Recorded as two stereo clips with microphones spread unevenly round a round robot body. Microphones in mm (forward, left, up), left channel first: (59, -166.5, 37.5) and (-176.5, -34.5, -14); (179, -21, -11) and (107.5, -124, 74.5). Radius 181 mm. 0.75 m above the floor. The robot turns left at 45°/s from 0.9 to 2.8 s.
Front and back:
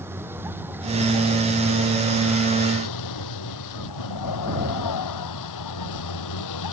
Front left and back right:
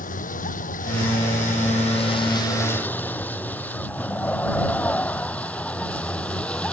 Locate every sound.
0.0 s a vehicle: 65° left; by 6.7 s 25° right